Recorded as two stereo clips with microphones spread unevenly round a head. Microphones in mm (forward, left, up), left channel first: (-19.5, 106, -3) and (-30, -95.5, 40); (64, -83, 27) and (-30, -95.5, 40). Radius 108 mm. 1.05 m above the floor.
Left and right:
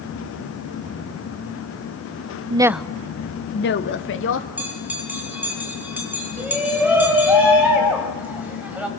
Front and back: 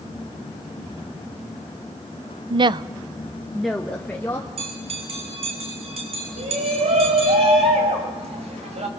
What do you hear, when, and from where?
2.5 s a woman speaking: 160° right, 0.6 m; by 4.5 s 80° left, 1.7 m
4.6 s a bell: 175° right, 4.5 m
6.4 s a shout: 175° right, 5 m